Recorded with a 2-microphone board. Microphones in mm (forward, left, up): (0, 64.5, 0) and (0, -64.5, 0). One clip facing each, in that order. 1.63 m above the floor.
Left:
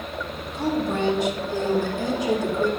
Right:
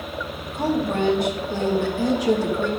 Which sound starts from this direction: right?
A woman speaking, at 0.5 s.